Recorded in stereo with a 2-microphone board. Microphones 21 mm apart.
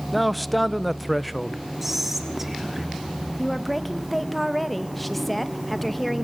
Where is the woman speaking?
5° left (ahead or behind), 1.7 m.